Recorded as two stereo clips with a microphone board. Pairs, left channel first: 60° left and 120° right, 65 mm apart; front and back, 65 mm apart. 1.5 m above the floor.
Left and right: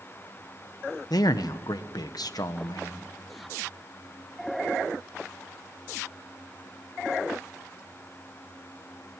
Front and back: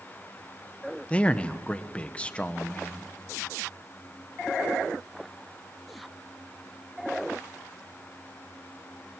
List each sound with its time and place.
1.1 s a man speaking: 70° left, 1.2 m